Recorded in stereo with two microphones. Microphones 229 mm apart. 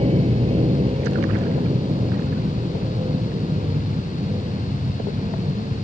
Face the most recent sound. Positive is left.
turn(degrees=-25)  # may be behind; listen again after turning